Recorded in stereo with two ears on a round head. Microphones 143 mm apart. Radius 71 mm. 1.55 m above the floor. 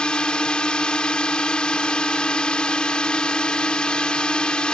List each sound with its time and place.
0.0 s a drone: 5° left (ahead or behind)